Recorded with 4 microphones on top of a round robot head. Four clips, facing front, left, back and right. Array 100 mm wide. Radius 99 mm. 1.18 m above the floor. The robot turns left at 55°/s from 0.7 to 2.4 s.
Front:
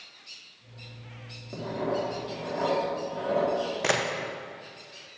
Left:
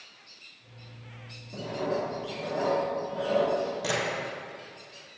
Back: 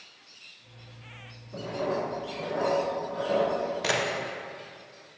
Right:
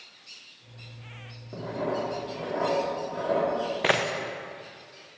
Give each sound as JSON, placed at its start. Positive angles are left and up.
{"t": 1.5, "sound": "writing", "azimuth_deg": -30, "distance_m": 3.0}
{"t": 3.8, "sound": "a camera shutter", "azimuth_deg": -65, "distance_m": 0.9}